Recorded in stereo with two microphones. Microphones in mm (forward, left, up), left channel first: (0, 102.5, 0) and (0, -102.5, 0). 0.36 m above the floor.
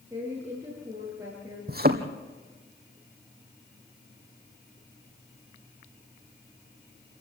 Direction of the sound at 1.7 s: 50° right (ahead or behind).